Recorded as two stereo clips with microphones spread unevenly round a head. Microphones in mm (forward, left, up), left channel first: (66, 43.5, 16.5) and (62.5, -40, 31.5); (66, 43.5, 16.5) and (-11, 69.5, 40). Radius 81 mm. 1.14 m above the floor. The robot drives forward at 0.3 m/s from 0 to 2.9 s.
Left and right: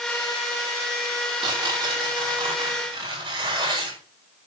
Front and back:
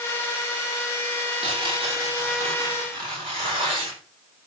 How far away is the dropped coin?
No dropped coin in this recording.